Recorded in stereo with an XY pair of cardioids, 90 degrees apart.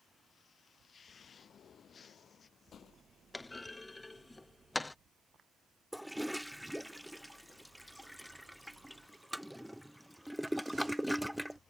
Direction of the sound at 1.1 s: 60° left.